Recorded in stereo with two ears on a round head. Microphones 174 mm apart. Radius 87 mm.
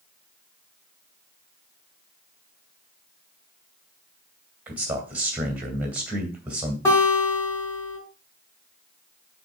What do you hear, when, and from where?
4.7 s a man speaking: 5° right (ahead or behind), 2.5 m
6.8 s a guitar: 15° left (ahead or behind), 4.5 m